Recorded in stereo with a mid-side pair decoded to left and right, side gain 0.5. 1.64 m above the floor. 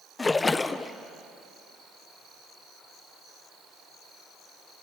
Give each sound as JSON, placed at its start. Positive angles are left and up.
{"t": 0.2, "sound": "a splash", "azimuth_deg": 25, "distance_m": 0.9}